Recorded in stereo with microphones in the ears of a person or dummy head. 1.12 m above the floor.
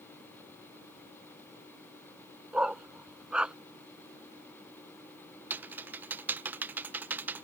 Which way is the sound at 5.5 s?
5° right (ahead or behind).